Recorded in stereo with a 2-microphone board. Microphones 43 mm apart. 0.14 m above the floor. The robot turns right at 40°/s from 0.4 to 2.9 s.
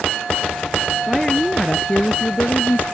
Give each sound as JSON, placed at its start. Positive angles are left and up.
{"t": 1.1, "sound": "a woman speaking", "azimuth_deg": 0}